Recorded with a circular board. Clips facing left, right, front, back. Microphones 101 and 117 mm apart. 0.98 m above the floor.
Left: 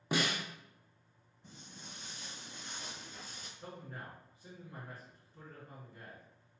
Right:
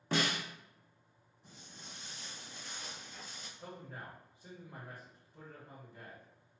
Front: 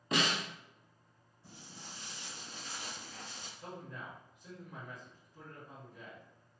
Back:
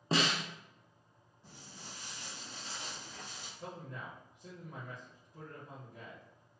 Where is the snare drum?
160° left, 0.7 m.